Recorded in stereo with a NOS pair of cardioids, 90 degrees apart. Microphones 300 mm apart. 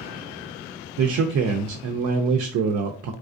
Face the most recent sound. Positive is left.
turn(degrees=-60)